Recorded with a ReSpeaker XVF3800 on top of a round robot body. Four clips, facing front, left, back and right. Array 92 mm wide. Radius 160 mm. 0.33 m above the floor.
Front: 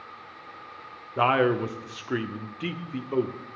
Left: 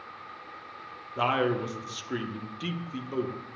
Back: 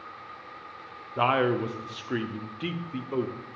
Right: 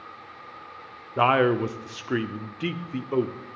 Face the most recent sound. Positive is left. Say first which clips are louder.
# right 6 dB, front 2 dB
turn(degrees=-75)